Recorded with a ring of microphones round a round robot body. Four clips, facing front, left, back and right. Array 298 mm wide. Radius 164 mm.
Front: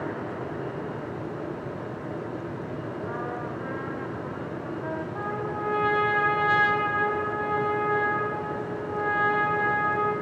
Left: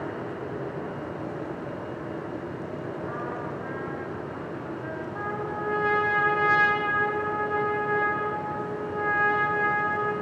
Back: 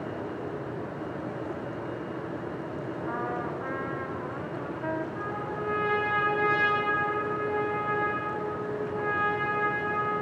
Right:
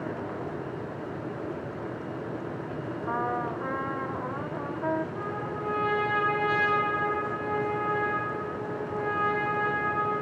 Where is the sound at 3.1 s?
95° right, 1.1 m.